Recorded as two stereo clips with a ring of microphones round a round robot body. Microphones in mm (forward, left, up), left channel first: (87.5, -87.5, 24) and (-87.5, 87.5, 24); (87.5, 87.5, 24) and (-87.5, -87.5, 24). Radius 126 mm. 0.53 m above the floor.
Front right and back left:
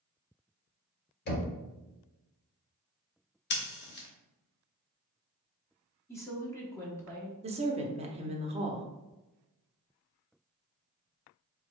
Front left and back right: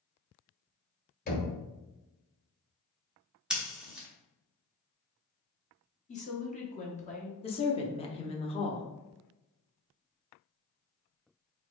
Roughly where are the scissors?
Ahead right.